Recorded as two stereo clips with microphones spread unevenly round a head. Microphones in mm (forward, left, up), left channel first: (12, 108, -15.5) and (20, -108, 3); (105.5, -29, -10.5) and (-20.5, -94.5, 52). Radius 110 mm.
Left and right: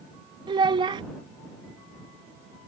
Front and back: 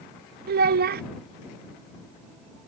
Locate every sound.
0.5 s a child speaking: 160° right